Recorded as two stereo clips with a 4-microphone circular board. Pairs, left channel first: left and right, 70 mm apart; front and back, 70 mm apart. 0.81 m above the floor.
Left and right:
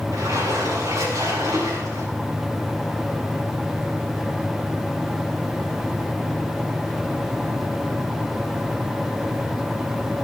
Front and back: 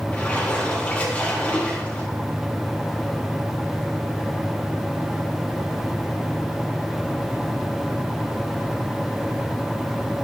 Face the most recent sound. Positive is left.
turn(degrees=-70)